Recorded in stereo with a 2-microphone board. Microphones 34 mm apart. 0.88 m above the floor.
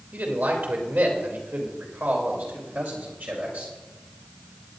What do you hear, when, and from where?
0.1 s a man speaking: 75° right (ahead or behind), 3 m; by 3.7 s 55° right (ahead or behind), 3.5 m